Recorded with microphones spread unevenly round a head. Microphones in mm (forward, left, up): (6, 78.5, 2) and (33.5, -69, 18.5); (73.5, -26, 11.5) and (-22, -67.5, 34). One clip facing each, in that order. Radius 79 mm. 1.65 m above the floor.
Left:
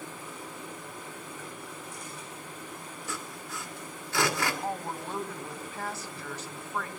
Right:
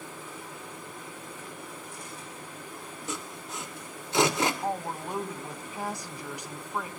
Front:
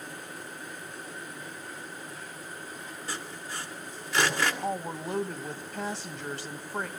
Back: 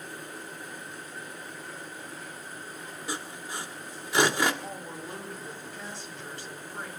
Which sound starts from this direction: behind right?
Sawing, at 3.1 s.